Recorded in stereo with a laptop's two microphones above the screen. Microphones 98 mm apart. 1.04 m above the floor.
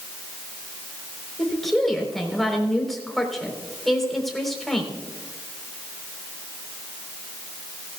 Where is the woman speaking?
5° left (ahead or behind), 4 m.